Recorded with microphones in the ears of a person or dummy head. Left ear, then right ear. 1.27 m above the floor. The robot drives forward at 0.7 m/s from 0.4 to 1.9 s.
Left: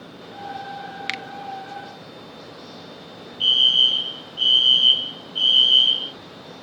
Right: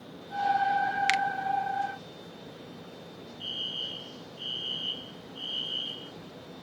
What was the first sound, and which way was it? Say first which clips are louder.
A finger snap: right 1 dB; 10° right (ahead or behind).